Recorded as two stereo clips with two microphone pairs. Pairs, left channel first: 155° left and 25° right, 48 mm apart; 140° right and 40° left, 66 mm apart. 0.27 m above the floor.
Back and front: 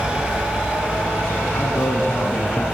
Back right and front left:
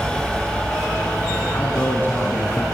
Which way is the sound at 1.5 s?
165° left.